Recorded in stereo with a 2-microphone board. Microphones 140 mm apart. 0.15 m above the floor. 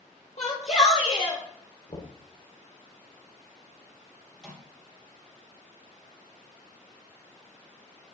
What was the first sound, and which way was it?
A shout, 55° left (ahead or behind).